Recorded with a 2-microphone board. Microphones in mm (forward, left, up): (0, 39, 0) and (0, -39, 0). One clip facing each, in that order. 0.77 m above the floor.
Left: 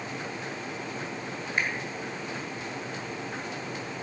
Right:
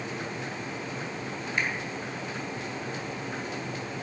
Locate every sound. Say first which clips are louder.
1.6 s a finger snap: left 1 dB; 35° left (ahead or behind), 2 m